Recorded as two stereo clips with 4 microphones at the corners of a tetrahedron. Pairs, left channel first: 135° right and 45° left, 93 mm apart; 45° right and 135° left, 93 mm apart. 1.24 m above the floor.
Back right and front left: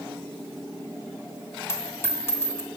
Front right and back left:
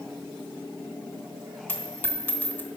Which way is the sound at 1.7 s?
95° right.